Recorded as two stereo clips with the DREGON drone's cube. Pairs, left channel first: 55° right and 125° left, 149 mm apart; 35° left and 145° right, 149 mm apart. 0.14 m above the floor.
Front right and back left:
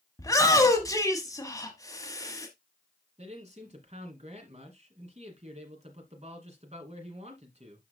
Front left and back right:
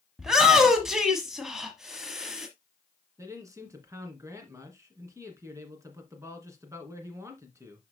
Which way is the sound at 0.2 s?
65° right.